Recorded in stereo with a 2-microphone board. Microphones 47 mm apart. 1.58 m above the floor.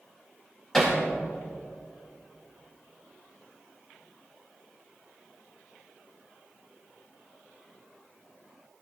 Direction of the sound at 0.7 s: 10° left (ahead or behind).